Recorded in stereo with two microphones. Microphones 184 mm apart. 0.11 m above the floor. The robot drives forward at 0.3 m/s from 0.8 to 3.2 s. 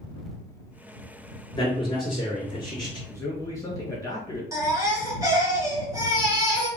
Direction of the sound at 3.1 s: 20° left (ahead or behind).